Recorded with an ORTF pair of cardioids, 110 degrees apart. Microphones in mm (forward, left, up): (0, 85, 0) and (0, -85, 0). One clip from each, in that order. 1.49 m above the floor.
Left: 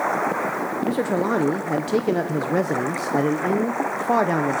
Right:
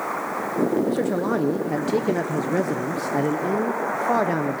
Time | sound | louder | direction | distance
0.8 | a man speaking | left 1 dB | 10° left | 0.6 m